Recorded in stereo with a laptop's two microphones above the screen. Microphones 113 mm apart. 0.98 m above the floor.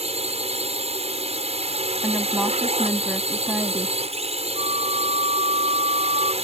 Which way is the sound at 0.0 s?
70° right (ahead or behind).